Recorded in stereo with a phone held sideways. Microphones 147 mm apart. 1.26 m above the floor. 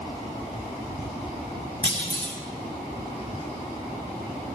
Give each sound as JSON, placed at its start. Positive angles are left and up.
{"t": 1.8, "sound": "a clunk", "side_deg": -35, "distance_m": 4.0}